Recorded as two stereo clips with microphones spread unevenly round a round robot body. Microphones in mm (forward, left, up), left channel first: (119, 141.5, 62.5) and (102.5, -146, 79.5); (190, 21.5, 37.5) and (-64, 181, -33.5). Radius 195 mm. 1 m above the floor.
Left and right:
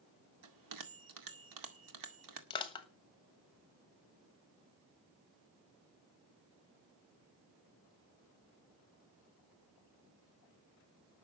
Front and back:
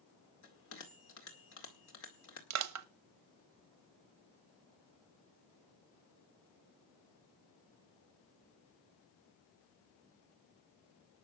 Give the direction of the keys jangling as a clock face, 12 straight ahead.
No keys jangling in this recording.